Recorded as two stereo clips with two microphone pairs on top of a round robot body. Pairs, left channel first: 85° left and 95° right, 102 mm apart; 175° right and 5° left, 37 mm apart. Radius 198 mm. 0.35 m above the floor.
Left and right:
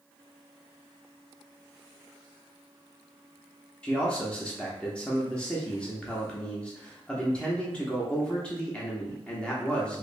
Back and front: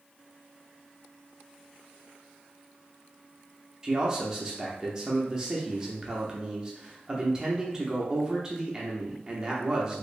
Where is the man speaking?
15° left, 0.9 m.